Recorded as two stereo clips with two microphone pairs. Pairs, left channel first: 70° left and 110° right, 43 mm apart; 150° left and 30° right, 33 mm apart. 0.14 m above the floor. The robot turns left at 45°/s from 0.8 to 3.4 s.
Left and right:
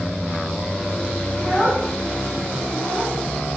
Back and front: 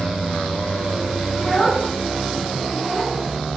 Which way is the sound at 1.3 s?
Straight behind.